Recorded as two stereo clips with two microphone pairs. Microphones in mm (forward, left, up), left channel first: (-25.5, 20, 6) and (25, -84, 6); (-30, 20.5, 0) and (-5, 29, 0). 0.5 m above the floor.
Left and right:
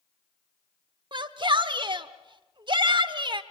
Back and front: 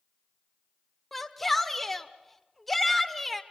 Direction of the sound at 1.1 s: 85° right.